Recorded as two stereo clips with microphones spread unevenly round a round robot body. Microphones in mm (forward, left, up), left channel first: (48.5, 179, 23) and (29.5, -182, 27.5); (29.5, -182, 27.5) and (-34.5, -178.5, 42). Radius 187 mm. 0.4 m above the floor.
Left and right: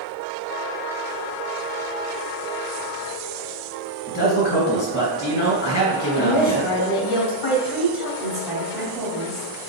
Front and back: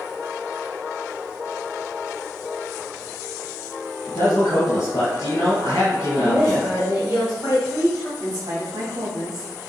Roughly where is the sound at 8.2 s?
Behind.